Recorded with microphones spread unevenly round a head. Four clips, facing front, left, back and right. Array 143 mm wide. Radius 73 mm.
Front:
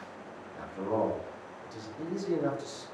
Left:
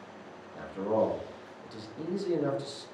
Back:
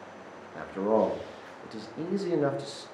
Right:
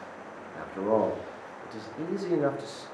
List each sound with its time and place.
0.6 s a man speaking: 155° right, 0.6 m